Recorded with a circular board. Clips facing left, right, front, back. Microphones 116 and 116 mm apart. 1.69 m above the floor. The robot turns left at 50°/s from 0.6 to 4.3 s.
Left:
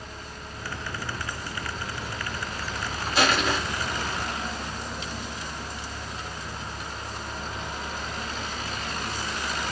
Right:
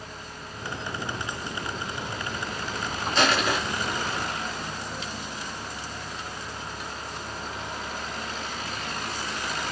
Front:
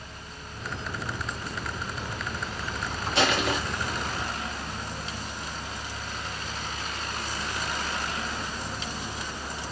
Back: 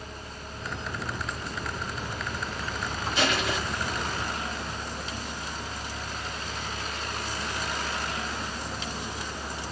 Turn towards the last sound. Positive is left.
turn(degrees=-50)